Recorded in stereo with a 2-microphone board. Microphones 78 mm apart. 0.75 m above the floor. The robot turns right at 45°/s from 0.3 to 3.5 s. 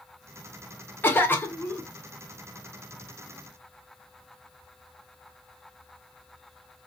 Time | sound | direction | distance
1.0 | a cough | 25° left (ahead or behind) | 0.9 m